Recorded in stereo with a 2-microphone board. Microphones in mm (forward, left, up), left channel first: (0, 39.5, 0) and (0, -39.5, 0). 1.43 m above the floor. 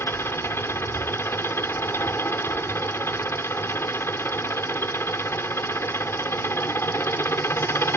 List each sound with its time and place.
0.0 s an engine running: 30° left (ahead or behind)